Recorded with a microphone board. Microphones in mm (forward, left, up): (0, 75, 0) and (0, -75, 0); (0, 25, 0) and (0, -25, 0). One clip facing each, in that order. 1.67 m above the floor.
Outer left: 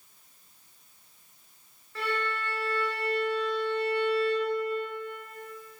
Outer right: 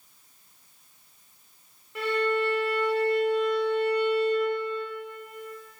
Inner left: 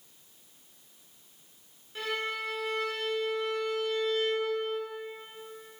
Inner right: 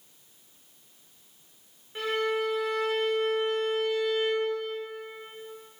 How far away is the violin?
About 1.3 m.